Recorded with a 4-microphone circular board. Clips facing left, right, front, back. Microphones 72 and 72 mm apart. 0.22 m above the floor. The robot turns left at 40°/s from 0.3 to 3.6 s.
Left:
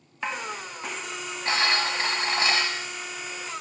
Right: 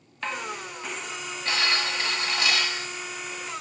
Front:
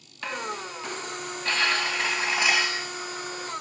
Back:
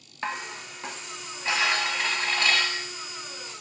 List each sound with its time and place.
0.2 s dishes clattering: 155° left, 0.9 m; by 2.9 s 50° left, 0.9 m